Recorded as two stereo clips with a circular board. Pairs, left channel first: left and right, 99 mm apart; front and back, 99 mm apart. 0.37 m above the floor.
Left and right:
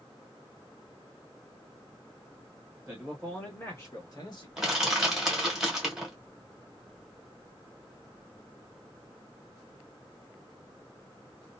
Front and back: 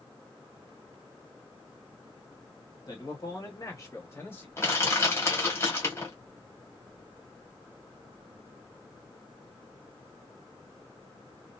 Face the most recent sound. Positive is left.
turn(degrees=-15)